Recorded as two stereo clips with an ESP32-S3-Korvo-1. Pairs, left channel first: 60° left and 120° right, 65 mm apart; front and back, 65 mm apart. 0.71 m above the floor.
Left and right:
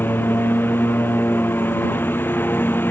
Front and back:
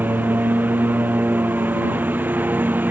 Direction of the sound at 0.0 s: 120° left.